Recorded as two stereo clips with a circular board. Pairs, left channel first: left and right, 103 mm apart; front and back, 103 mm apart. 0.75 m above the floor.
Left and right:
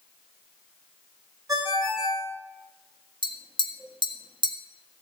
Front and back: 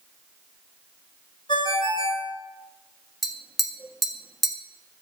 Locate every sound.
1.5 s a ringtone: 35° right, 5 m
3.2 s tapping: 90° right, 1.6 m